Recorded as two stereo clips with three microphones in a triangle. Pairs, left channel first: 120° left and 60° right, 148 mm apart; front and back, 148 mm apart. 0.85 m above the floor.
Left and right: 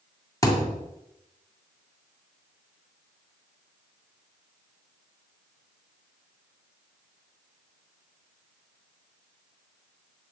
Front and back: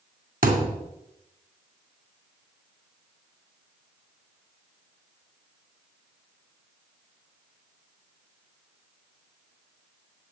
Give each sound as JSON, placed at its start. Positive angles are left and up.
{"t": 0.4, "sound": "a thud", "azimuth_deg": -175, "distance_m": 2.5}